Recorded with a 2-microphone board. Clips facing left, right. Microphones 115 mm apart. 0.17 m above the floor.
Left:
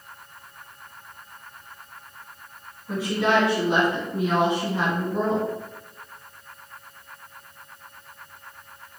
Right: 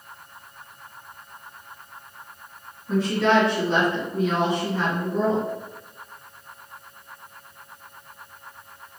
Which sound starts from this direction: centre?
A woman speaking, at 2.9 s.